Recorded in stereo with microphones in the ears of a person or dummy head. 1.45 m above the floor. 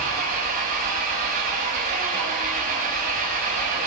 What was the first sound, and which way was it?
An engine running, 40° right (ahead or behind).